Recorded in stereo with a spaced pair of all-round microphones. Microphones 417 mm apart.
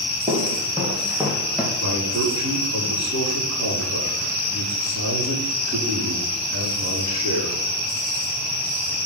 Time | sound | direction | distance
0.3 | footsteps | 15° right (ahead or behind) | 2.5 m
1.8 | a man speaking | 40° right (ahead or behind) | 3.5 m